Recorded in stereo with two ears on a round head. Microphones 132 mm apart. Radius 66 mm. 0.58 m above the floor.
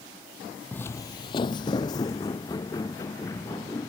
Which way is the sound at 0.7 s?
10° left (ahead or behind).